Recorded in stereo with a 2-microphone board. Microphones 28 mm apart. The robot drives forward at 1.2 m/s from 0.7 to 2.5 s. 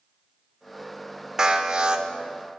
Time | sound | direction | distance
1.4 | an alarm | 25° right (ahead or behind) | 1.0 m